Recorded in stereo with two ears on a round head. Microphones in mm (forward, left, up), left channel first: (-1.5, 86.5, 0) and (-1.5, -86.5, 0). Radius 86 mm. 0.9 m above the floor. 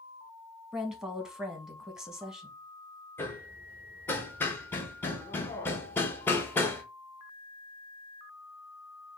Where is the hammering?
10° left (ahead or behind), 0.9 m.